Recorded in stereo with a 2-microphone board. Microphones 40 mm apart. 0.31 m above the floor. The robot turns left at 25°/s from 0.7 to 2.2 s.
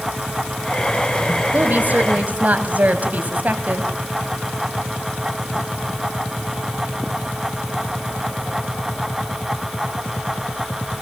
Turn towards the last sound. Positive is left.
turn(degrees=-45)  # may be behind; listen again after turning